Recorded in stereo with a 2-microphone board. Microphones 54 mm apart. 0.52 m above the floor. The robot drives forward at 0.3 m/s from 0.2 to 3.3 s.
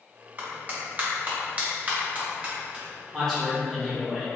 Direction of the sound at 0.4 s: 35° right (ahead or behind).